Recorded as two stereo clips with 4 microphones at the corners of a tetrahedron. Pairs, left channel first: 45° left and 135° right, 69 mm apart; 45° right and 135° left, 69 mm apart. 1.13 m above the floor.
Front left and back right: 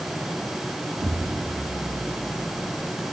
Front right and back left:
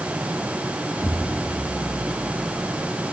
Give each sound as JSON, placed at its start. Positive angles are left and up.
{"t": 1.0, "sound": "an explosion", "azimuth_deg": -150, "distance_m": 1.5}